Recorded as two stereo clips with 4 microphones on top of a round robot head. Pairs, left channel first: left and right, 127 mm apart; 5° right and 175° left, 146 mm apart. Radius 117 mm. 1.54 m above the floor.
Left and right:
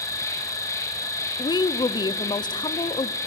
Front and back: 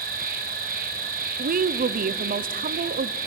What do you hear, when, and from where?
0.0 s an insect: 155° left, 3 m
1.4 s a woman speaking: 150° left, 0.7 m